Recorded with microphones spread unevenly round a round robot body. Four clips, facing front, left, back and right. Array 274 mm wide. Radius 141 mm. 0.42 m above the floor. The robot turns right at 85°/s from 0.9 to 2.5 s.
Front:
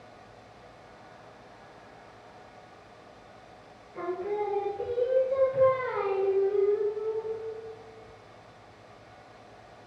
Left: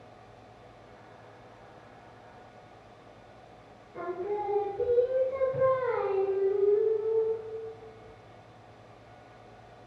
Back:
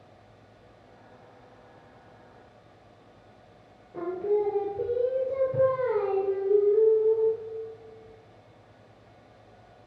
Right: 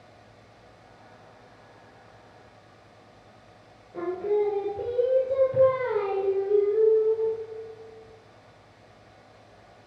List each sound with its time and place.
3.9 s singing: 145° right, 2.5 m